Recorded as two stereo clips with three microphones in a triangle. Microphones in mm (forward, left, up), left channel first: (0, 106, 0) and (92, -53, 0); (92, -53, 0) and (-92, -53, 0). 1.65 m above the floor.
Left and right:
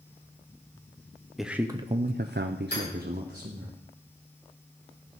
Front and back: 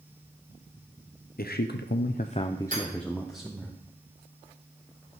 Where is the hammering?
140° left, 7 m.